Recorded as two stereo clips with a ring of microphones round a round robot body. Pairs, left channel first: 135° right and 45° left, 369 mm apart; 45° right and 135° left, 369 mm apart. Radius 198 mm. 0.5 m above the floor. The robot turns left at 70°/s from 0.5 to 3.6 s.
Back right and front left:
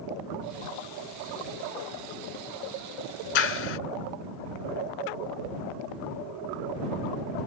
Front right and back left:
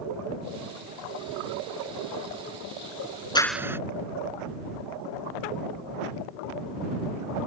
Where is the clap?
125° right; by 3.8 s 140° right.